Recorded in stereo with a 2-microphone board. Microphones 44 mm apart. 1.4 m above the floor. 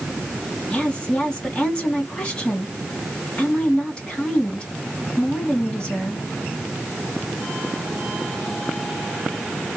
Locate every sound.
0.7 s a woman speaking: 20° left (ahead or behind), 1.7 m